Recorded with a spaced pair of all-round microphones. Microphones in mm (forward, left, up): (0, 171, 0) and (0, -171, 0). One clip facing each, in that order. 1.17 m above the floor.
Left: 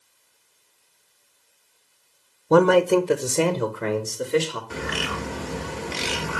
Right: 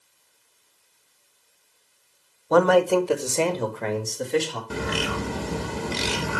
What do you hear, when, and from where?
2.5 s a man speaking: 40° left (ahead or behind), 0.7 m; by 4.6 s 10° left (ahead or behind), 2 m
4.7 s a bird: 50° right (ahead or behind), 0.9 m